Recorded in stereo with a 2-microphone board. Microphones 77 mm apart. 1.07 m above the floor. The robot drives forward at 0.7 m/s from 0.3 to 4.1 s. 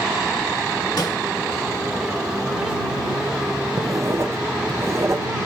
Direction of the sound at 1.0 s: 55° left (ahead or behind).